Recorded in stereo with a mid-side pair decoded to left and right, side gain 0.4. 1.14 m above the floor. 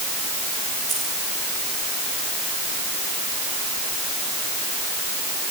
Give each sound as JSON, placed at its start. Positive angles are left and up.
{"t": 0.9, "sound": "keys jangling", "azimuth_deg": -45, "distance_m": 9.5}